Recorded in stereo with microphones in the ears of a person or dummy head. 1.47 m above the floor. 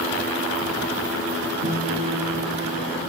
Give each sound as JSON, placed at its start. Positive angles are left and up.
{"t": 1.6, "sound": "a guitar", "side_deg": -50, "distance_m": 6.0}